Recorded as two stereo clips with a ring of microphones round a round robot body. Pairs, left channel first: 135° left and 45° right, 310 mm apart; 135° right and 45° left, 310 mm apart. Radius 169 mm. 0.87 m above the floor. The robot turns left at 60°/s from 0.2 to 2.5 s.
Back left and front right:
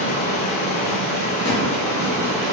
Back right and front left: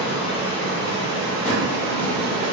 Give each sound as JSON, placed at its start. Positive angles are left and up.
{"t": 0.0, "sound": "running water", "azimuth_deg": 140, "distance_m": 1.7}
{"t": 1.4, "sound": "a drawer", "azimuth_deg": 155, "distance_m": 1.2}